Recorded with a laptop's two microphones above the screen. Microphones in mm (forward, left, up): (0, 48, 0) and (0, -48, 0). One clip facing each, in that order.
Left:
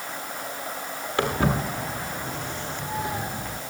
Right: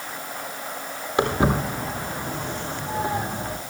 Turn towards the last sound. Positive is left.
turn(degrees=-45)  # may be behind; listen again after turning